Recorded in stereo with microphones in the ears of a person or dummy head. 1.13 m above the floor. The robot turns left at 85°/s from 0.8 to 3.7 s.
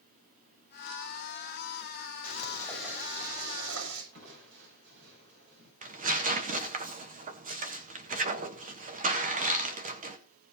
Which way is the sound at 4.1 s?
65° right (ahead or behind).